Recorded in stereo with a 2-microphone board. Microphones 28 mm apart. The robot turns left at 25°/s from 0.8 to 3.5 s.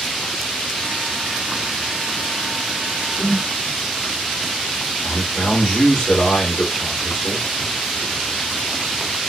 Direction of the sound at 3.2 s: 45° left (ahead or behind).